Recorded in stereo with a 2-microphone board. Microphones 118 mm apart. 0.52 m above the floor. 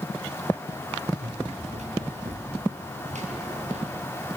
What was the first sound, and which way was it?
Running footsteps, 80° right.